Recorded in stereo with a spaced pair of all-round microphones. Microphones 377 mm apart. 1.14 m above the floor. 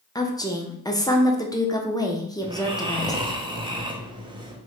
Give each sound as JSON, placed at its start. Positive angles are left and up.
{"t": 0.1, "sound": "a woman speaking", "side_deg": 10, "distance_m": 0.5}
{"t": 2.4, "sound": "snoring", "side_deg": -15, "distance_m": 0.5}